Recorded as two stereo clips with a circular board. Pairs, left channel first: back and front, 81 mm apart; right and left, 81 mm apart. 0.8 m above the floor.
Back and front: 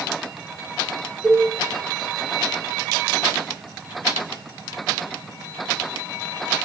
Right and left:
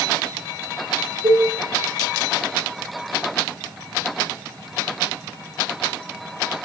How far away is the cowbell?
About 4.5 m.